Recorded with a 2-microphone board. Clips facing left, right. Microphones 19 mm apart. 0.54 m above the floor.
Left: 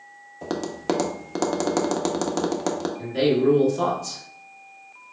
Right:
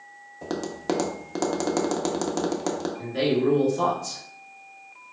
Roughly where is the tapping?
Centre.